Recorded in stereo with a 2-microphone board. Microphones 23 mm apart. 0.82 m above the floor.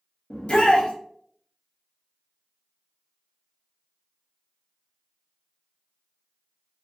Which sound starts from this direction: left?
A shout, at 0.3 s.